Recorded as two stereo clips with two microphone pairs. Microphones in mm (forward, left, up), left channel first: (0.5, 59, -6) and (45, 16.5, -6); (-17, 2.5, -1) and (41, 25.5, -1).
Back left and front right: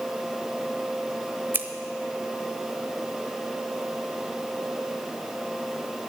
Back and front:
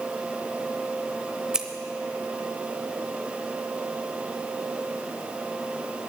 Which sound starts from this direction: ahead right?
Scissors, at 1.5 s.